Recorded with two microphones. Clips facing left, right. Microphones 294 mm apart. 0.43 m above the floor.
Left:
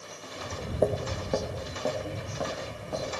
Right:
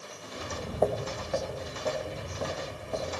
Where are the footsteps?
20° right (ahead or behind), 1.0 m; by 3.1 s 80° left, 3.5 m.